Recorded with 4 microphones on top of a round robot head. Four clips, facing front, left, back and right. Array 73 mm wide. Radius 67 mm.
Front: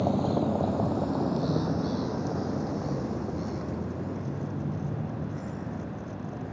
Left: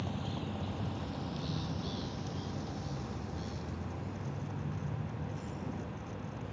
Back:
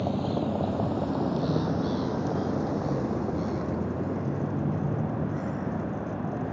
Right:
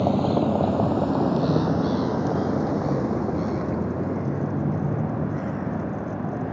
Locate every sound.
0.0 s a vehicle: 80° right; by 6.5 s 115° right